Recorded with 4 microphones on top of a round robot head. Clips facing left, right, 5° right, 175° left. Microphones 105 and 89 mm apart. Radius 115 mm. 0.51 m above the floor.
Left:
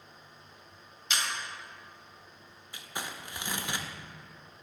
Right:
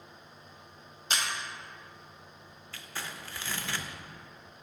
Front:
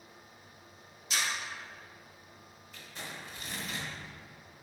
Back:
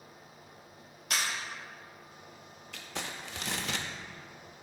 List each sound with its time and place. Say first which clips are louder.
1.1 s a camera shutter: right 1 dB, back 1 dB; 145° right, 1.4 m
2.7 s crumpling: left 2 dB, back 4 dB; 165° left, 0.7 m